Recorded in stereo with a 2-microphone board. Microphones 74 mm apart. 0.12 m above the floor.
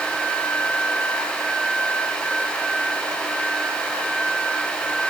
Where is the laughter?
I don't hear laughter.